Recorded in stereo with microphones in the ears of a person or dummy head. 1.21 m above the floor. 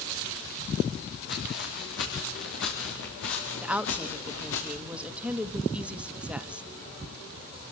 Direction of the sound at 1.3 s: 60° left (ahead or behind).